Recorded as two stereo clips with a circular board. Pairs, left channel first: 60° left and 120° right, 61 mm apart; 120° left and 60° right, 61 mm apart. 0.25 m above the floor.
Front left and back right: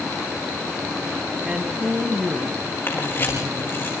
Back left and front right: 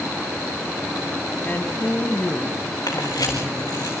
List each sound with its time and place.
1.4 s a woman speaking: 170° left, 1.7 m
2.9 s a camera shutter: 115° left, 6 m